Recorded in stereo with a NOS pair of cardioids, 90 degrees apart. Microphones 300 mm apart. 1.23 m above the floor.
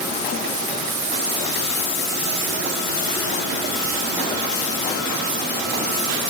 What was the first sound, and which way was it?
Only background noise.